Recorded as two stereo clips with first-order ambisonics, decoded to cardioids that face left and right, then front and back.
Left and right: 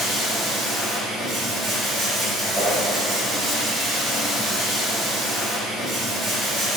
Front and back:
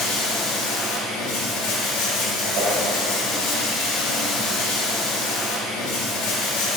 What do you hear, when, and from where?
0.0 s running water: 15° right, 1.0 m
2.5 s a whoosh: straight behind, 1.3 m